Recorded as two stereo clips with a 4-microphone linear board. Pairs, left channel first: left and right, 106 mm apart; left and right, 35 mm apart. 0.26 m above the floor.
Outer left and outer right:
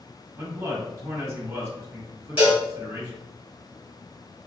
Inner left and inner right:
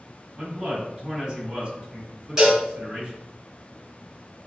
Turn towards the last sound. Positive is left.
turn(degrees=-15)  # may be behind; listen again after turning